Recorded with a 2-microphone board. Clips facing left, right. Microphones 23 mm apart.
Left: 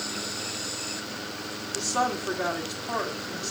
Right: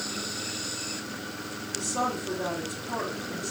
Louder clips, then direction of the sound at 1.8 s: Left 3 dB; 50° left (ahead or behind).